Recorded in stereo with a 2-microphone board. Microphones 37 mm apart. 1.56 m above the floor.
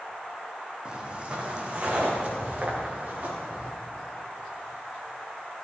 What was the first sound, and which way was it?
Footsteps, 25° right (ahead or behind).